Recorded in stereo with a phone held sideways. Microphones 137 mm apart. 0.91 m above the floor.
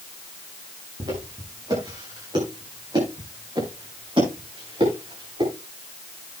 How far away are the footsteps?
About 9 m.